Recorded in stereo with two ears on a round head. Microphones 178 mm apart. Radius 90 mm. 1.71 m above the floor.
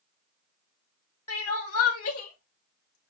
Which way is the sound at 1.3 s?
80° left.